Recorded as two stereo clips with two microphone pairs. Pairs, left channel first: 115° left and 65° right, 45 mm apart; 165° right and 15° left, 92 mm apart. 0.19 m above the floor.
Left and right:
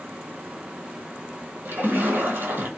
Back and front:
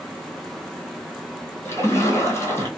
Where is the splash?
100° right, 1.1 m.